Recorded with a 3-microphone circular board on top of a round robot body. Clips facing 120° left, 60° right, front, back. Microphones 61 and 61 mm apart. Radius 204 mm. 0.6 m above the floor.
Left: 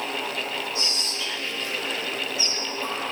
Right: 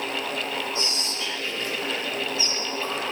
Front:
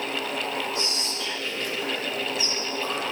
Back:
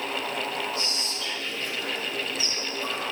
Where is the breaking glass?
No breaking glass in this recording.